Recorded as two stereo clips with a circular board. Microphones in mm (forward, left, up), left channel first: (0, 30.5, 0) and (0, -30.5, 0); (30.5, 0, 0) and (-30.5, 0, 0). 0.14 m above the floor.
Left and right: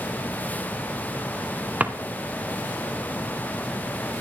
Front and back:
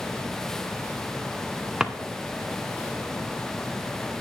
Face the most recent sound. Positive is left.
turn(degrees=-115)